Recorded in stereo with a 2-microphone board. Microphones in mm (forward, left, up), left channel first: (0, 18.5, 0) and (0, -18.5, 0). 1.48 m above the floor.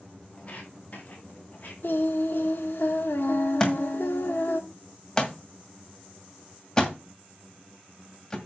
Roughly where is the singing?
Left.